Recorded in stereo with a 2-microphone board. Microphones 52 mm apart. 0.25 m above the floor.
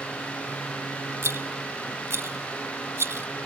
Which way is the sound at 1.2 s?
60° right (ahead or behind).